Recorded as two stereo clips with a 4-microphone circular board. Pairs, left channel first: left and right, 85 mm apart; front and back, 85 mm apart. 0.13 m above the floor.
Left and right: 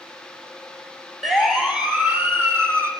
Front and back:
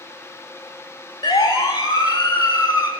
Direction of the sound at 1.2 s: 5° right.